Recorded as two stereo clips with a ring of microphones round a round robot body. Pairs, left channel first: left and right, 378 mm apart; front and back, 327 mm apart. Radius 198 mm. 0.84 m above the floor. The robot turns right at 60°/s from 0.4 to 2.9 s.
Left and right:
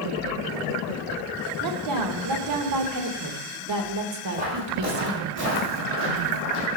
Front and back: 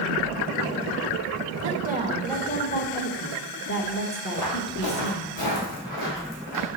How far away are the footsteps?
About 2 m.